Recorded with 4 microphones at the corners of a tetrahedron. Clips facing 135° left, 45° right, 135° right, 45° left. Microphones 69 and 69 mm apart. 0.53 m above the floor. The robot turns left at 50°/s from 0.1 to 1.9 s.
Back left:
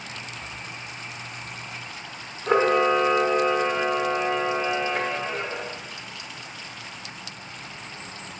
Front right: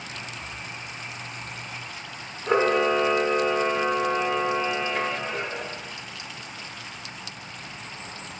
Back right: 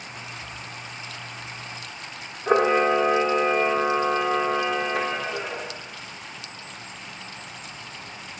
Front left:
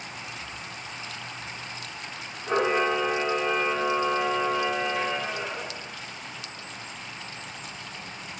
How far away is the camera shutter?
About 1.0 m.